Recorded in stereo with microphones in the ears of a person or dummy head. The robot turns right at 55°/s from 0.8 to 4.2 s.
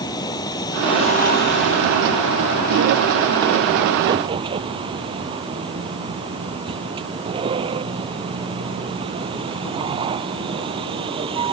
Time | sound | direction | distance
0.0 | a vehicle | 25° left | ?